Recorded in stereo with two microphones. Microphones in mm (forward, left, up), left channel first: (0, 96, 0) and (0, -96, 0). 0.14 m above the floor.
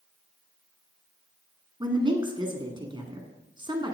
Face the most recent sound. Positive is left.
turn(degrees=-25)  # may be behind; listen again after turning